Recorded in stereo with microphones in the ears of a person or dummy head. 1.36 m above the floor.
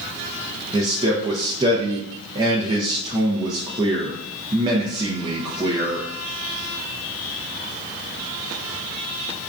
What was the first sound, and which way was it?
A man speaking, 20° right (ahead or behind).